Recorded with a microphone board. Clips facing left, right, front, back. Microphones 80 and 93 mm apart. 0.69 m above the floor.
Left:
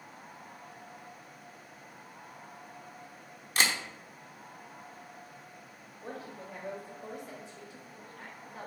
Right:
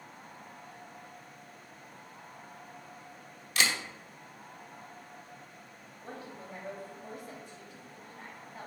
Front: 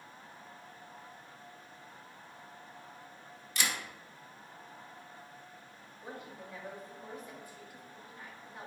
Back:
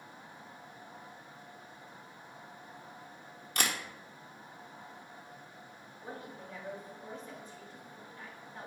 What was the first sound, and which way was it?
A camera shutter, 145° left.